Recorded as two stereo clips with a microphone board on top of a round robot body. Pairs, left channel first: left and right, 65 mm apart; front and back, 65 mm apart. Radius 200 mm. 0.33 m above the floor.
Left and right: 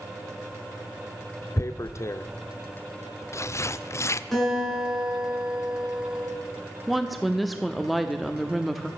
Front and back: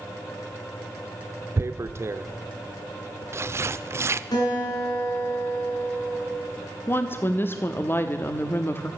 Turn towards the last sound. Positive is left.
turn(degrees=0)